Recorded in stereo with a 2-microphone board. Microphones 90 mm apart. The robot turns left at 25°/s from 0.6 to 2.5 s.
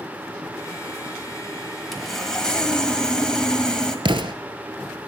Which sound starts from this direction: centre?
Sawing, at 1.9 s.